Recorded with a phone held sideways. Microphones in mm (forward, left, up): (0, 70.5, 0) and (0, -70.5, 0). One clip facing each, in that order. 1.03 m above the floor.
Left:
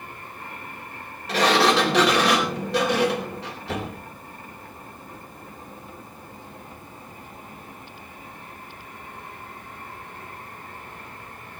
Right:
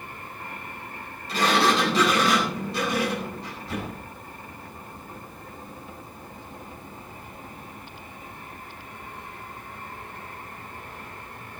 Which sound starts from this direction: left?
A sliding door, at 1.3 s.